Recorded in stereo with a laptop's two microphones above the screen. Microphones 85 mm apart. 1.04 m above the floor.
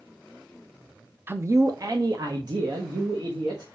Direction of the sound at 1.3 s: 25° right (ahead or behind).